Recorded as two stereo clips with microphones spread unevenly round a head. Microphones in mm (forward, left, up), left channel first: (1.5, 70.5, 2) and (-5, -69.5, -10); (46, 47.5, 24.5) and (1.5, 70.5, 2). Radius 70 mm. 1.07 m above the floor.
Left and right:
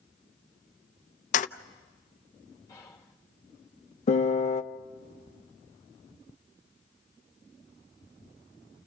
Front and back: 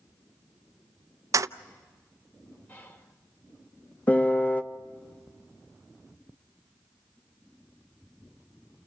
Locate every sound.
1.3 s keys jangling: 125° left, 0.6 m
2.7 s whispering: 20° left, 3.5 m
4.1 s a piano: 45° left, 0.9 m